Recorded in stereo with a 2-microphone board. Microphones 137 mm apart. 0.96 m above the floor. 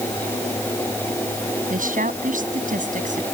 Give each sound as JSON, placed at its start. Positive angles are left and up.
{"t": 1.7, "sound": "a woman speaking", "side_deg": -85}